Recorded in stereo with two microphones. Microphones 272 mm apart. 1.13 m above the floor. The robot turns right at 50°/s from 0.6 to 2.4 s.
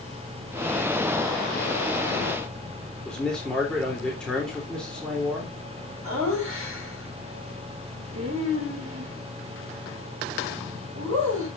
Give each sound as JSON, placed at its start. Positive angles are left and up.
{"t": 3.0, "sound": "a man speaking", "side_deg": 5, "distance_m": 3.0}
{"t": 6.0, "sound": "laughter", "side_deg": -50, "distance_m": 7.0}